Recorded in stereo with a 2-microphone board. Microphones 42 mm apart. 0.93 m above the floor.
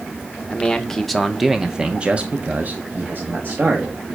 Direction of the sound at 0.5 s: 15° left (ahead or behind).